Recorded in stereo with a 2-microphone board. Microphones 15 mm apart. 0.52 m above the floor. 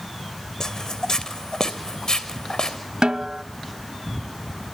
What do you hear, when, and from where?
0.6 s footsteps: 45° left (ahead or behind), 1.9 m; by 2.8 s 60° left (ahead or behind), 3.5 m
3.0 s a snare drum: 75° right (ahead or behind), 0.6 m